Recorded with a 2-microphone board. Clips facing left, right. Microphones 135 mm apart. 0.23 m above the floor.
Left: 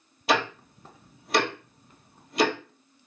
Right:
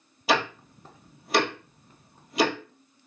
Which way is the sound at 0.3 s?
Centre (ahead or behind).